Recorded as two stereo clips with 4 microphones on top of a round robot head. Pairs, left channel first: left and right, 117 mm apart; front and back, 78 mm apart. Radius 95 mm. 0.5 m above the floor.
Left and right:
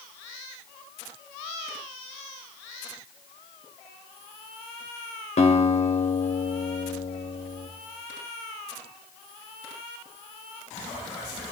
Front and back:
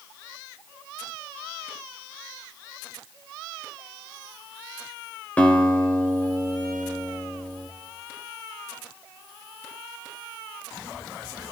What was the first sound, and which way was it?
A guitar, 70° left.